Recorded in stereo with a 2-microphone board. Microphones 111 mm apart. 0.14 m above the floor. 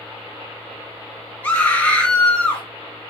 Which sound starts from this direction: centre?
A scream, at 1.4 s.